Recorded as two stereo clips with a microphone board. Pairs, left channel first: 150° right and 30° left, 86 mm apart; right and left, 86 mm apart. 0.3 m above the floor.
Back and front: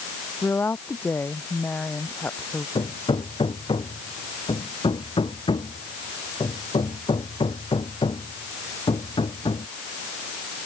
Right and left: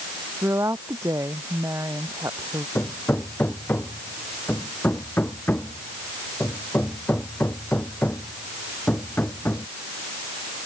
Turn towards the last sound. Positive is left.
turn(degrees=-155)